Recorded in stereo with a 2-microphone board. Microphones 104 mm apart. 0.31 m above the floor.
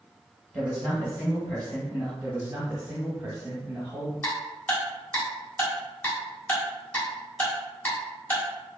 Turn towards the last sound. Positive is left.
turn(degrees=20)  # may be behind; listen again after turning